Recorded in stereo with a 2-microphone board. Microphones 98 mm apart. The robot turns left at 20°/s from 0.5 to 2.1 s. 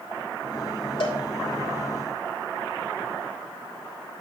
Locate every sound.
1.0 s a cowbell: 60° left (ahead or behind), 1.7 m; by 1.2 s 55° left (ahead or behind), 1.7 m